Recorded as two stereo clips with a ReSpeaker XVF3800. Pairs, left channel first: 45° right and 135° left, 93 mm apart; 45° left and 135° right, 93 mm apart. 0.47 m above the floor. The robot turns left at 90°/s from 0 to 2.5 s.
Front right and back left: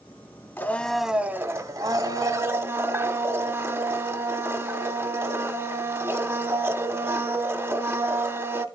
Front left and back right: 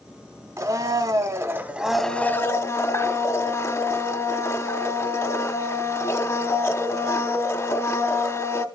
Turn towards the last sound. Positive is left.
turn(degrees=85)